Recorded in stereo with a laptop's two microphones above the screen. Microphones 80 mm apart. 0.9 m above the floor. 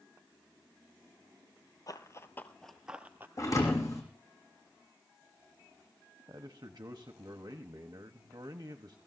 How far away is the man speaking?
About 1.1 m.